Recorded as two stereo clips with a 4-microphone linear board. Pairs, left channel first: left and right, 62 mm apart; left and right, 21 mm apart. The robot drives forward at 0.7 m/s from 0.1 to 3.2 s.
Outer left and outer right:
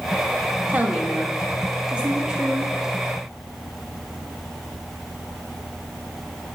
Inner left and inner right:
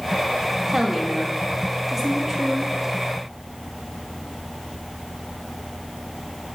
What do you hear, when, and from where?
0.7 s a woman speaking: 25° right (ahead or behind), 1.5 m; by 2.7 s 15° right (ahead or behind), 2.5 m